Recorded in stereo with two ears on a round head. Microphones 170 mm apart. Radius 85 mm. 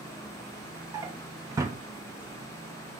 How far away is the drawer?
About 0.6 m.